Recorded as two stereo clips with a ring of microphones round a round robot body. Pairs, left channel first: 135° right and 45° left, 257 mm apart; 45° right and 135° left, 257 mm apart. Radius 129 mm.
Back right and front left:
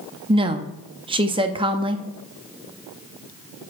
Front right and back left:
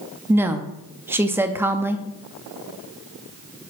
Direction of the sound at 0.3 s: 70° left.